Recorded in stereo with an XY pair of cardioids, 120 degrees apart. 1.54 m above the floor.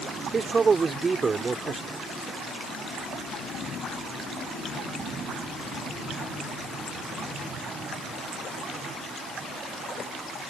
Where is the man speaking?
30° right.